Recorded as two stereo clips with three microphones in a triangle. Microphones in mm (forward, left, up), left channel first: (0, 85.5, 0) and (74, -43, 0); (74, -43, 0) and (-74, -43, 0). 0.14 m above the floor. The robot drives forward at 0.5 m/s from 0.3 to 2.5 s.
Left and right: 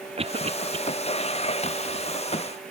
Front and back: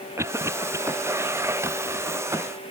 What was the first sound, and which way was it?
A cough, 110° right.